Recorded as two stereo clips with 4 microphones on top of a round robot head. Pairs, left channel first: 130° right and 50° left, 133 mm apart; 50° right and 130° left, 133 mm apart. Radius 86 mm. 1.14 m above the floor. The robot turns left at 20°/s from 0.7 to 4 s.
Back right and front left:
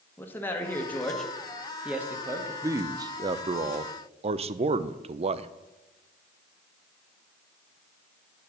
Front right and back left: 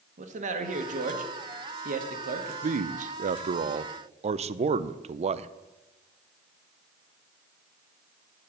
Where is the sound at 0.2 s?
155° left, 1.5 m; by 2.5 s 120° left, 1.5 m.